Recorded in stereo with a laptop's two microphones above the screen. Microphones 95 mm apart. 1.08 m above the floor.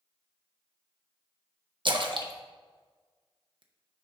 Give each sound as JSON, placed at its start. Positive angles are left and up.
{"t": 1.9, "sound": "a splash", "side_deg": -55, "distance_m": 0.7}